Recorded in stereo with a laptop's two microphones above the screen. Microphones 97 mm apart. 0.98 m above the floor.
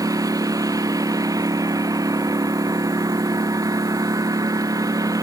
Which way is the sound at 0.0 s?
40° right (ahead or behind).